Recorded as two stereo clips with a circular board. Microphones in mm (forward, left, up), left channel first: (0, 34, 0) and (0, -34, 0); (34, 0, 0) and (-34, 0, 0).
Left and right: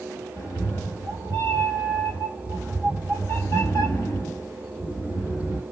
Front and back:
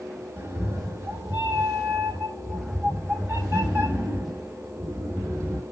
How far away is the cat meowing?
About 1.1 m.